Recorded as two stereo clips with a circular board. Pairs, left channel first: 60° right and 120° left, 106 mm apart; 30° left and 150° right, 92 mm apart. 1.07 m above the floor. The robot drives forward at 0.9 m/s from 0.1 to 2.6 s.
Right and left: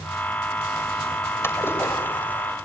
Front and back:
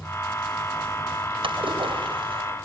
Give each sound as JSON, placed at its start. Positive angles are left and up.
{"t": 1.4, "sound": "a splash", "azimuth_deg": -130, "distance_m": 4.5}